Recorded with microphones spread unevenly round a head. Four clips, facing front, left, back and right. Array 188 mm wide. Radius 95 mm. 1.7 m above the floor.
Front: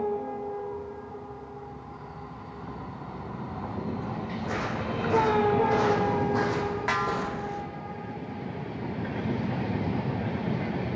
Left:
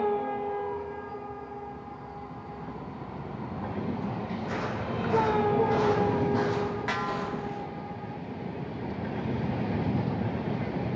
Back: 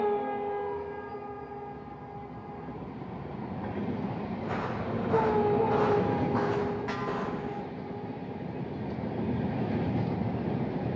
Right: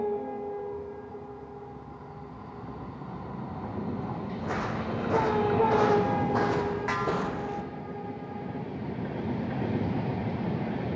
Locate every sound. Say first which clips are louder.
4.4 s footsteps: right 3 dB, front 2 dB; 65° right, 6 m; by 7.6 s 75° right, 3 m
6.9 s a snare drum: right 2 dB, front 4 dB; 5° right, 4 m